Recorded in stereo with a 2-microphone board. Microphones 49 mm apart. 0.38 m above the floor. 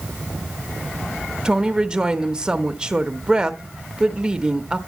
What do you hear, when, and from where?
1.4 s a woman speaking: 20° right (ahead or behind), 0.8 m